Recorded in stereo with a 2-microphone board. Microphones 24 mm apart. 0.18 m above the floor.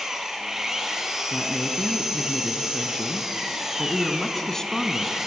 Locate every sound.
0.0 s an engine running: 20° right (ahead or behind), 3 m
1.3 s a woman speaking: 25° left (ahead or behind), 1.9 m